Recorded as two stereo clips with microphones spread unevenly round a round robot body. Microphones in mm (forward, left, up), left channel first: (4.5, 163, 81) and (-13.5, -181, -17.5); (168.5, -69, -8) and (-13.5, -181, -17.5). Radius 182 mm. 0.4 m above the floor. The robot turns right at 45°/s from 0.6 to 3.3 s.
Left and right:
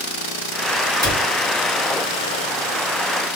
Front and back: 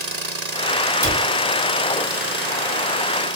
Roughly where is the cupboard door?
Ahead right.